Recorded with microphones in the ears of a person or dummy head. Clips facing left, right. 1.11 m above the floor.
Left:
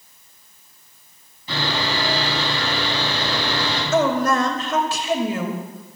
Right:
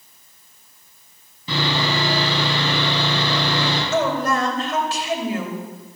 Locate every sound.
1.5 s sawing: 70° right (ahead or behind), 7.5 m
3.9 s a woman speaking: 75° left (ahead or behind), 2.5 m